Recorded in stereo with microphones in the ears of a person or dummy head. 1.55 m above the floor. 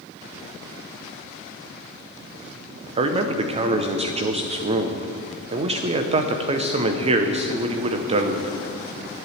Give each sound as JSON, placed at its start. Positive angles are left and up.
{"t": 3.0, "sound": "a man speaking", "side_deg": -30, "distance_m": 0.7}